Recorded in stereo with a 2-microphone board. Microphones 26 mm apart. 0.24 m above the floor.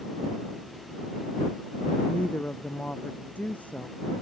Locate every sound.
2.1 s a woman speaking: 80° left